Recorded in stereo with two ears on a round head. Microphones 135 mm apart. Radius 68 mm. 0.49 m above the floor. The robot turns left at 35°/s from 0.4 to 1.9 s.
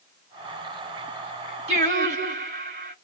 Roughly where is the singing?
Right.